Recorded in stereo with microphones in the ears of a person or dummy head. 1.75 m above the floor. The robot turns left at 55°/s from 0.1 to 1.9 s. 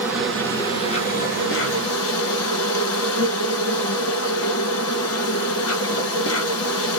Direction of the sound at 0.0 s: 170° right.